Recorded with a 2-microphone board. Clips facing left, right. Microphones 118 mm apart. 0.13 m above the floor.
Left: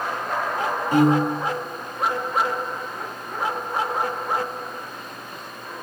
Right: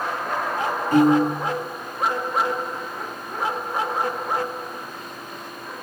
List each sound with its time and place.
0.9 s a piano: 10° left (ahead or behind), 3.5 m